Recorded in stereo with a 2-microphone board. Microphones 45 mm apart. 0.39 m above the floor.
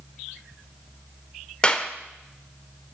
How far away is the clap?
About 0.9 m.